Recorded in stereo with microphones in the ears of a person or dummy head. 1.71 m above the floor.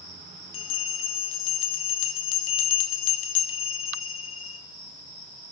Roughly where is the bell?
Left.